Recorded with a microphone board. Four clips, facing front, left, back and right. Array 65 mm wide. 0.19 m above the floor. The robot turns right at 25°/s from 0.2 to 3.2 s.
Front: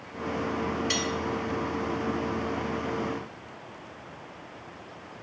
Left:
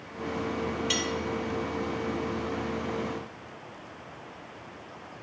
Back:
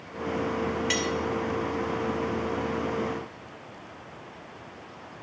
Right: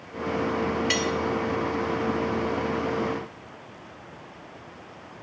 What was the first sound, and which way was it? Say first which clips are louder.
Cutlery clinking: right 5 dB, back 2 dB; 110° right.